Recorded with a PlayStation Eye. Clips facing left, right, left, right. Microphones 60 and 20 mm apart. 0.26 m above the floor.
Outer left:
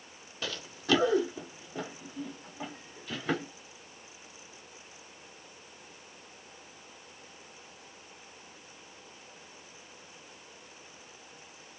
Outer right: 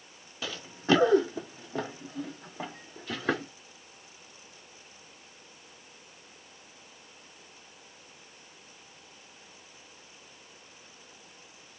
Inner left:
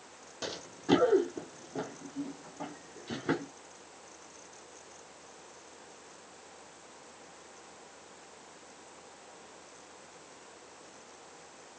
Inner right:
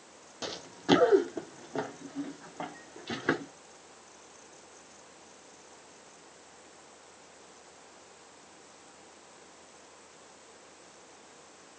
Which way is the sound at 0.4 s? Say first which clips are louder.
Outer right 4 dB, inner right 3 dB; 5° right (ahead or behind).